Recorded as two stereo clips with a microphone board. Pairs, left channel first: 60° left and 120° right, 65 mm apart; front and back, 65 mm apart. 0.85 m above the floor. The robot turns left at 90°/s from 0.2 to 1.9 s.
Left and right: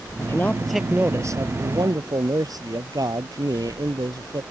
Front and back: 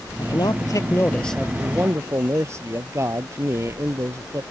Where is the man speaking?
15° left; by 4.4 s 135° right.